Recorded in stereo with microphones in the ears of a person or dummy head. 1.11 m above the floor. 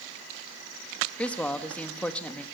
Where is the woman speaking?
10° left (ahead or behind), 1.4 m.